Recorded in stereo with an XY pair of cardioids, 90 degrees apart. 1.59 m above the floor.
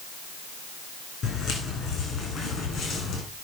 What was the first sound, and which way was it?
Footsteps, 70° left.